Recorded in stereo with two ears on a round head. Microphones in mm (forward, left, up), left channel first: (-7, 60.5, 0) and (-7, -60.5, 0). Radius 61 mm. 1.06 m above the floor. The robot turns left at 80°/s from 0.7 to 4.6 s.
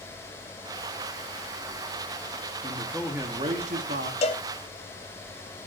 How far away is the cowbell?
About 1.4 m.